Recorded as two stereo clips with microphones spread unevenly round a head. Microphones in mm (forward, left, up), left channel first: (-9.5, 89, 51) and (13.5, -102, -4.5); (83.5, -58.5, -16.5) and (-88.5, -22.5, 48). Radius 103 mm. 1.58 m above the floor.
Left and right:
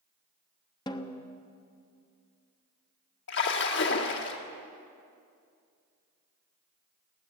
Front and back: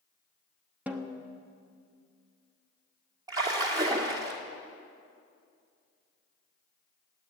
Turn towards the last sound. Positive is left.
turn(degrees=105)